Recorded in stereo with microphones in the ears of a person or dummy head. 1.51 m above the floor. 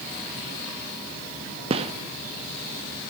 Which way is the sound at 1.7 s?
35° right (ahead or behind).